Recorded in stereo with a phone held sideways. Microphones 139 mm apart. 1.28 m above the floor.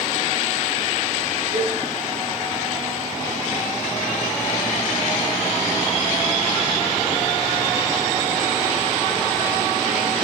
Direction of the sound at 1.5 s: 80° right.